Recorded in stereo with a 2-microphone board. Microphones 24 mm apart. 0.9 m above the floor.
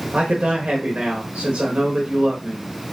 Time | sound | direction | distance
0.1 | a man speaking | 60° right (ahead or behind) | 1.2 m